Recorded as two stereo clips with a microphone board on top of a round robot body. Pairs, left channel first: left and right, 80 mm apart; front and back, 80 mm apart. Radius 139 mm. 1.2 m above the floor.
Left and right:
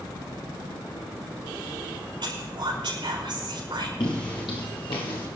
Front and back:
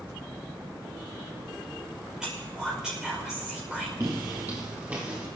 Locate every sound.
2.2 s whispering: 95° right, 5.5 m
4.0 s footsteps: 125° left, 1.5 m; by 5.3 s 105° left, 3 m